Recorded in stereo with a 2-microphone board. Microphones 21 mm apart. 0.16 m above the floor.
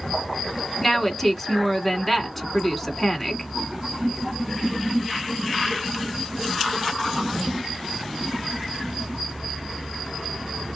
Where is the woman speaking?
5° left (ahead or behind), 1.4 m.